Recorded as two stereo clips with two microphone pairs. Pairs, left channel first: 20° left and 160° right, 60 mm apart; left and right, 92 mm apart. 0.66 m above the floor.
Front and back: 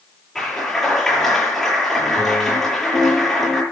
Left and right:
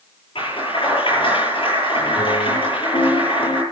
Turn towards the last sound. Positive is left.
turn(degrees=105)